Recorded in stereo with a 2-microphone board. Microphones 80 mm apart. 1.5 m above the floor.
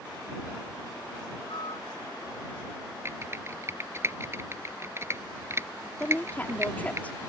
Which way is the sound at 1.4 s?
80° left.